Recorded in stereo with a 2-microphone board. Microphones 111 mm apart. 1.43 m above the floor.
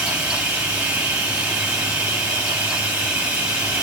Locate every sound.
0.0 s running water: 10° right (ahead or behind), 1.2 m